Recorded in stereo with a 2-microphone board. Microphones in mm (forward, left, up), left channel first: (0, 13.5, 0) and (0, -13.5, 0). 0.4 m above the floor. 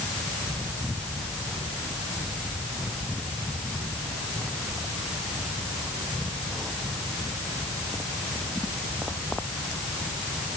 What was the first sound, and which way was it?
Only background noise.